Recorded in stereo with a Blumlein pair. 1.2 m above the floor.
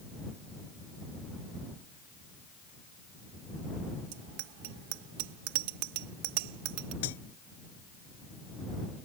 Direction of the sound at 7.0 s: 55° left.